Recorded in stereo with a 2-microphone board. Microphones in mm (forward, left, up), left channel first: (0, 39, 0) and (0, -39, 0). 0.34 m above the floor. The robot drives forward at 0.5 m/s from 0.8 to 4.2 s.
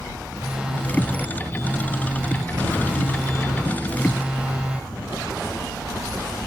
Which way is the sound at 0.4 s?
10° right (ahead or behind).